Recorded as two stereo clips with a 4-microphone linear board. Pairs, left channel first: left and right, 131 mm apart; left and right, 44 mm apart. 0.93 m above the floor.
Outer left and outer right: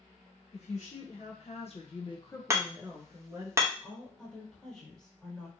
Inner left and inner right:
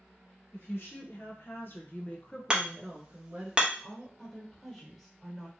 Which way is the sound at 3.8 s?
5° left (ahead or behind).